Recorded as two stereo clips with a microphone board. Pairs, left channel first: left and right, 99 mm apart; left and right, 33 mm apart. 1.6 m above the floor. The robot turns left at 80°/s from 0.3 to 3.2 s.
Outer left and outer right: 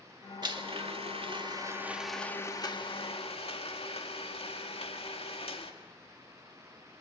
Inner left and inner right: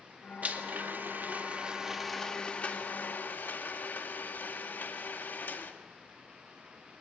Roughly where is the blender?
Ahead right.